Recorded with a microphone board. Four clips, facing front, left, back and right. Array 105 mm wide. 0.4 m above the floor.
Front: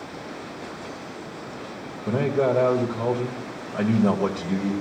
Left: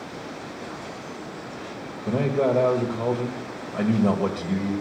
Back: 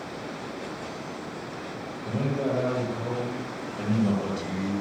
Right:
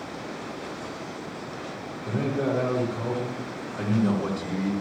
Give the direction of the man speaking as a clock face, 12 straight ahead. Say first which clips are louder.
Left 4 dB, front 6 dB; 11 o'clock.